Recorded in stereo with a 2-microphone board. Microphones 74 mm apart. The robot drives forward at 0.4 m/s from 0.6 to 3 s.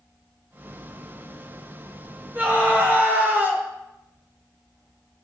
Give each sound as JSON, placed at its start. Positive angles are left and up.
{"t": 2.4, "sound": "a scream", "side_deg": -25, "distance_m": 1.3}